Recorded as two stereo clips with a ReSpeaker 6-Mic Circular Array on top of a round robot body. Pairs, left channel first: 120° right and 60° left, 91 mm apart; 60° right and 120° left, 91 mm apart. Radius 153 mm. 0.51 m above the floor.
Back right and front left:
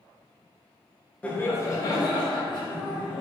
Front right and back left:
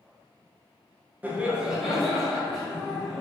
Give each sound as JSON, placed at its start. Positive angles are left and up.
{"t": 1.2, "sound": "laughter", "azimuth_deg": 175, "distance_m": 0.8}